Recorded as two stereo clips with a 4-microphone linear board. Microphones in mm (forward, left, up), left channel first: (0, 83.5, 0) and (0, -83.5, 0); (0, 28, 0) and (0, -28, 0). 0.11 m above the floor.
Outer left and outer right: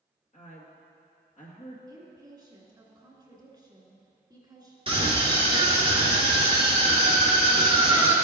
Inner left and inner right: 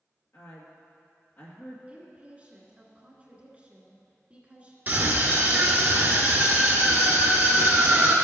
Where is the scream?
35° right (ahead or behind), 1.8 m.